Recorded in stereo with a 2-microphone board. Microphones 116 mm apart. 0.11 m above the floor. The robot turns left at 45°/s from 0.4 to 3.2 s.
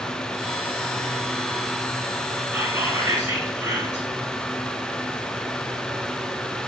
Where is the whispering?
20° right (ahead or behind), 1.8 m; by 4.1 s 15° right (ahead or behind), 1.8 m.